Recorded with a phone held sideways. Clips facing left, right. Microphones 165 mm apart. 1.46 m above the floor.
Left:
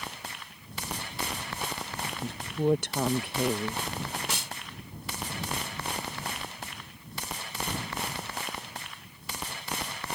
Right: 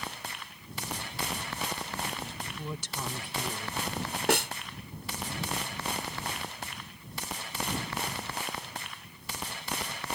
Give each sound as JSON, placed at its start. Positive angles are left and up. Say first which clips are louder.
{"t": 2.2, "sound": "a woman speaking", "louder": "left 12 dB", "side_deg": 65}
{"t": 4.3, "sound": "a snare drum", "louder": "right 11 dB", "side_deg": -65}